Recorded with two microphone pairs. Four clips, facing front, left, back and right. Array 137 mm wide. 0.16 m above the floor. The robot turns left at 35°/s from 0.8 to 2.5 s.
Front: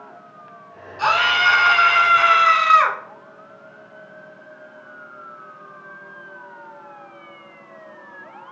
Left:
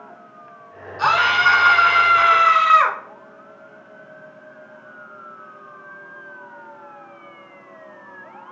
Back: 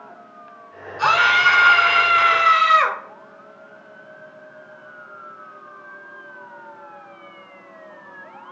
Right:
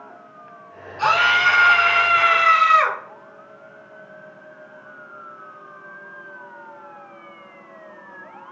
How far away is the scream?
About 1.1 m.